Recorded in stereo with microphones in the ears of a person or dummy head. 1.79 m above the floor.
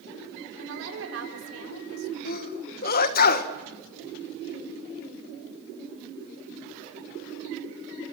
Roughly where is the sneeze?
Left.